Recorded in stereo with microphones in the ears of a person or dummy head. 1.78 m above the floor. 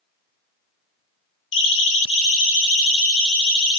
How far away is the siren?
About 3 m.